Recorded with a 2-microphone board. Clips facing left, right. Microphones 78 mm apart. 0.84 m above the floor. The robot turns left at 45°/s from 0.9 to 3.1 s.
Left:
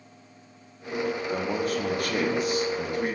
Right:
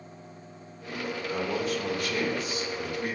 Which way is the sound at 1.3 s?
135° left.